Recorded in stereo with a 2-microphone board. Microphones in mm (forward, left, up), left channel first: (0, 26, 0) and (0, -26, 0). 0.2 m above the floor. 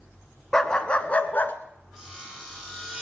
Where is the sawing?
Centre (ahead or behind), 6 m.